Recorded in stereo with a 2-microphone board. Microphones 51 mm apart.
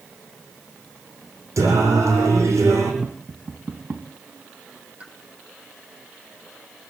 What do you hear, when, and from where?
1.6 s singing: 85° right, 7 m
3.0 s tapping: 40° right (ahead or behind), 2 m
5.0 s a pop: 25° right (ahead or behind), 2.5 m